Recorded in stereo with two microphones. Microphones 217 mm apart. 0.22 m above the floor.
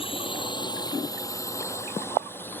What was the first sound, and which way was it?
A drone, 25° left (ahead or behind).